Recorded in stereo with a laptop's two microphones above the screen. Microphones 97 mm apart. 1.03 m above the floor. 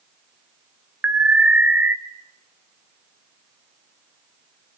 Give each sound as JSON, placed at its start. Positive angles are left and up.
{"t": 1.0, "sound": "an alarm", "side_deg": -15, "distance_m": 1.5}